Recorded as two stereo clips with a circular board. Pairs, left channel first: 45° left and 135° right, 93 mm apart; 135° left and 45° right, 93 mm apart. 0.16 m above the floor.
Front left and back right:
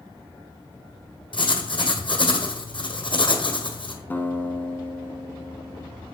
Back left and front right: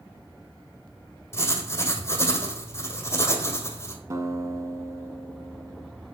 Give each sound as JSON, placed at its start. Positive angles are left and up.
{"t": 1.3, "sound": "writing", "azimuth_deg": 75, "distance_m": 1.4}
{"t": 4.1, "sound": "a guitar", "azimuth_deg": -15, "distance_m": 0.8}